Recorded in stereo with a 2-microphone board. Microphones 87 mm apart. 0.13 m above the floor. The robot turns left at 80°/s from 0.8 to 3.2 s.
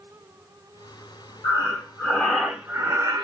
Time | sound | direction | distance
1.4 | breathing | 70° left | 1.9 m